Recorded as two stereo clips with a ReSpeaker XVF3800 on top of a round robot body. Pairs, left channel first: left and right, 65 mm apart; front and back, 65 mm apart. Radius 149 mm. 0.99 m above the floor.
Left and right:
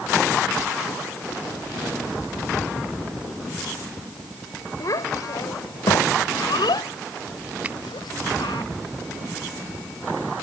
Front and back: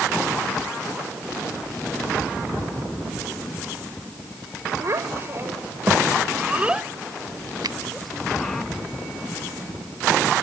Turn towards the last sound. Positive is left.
turn(degrees=-160)